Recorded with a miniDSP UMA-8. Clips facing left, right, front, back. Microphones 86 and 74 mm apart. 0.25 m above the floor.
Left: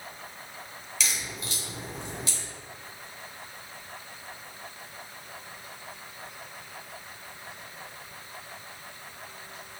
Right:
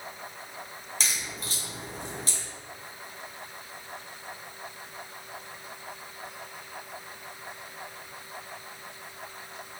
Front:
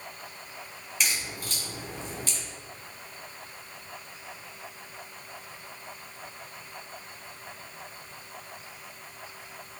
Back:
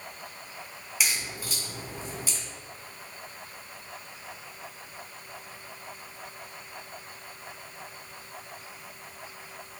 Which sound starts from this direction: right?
A crack, at 1.0 s.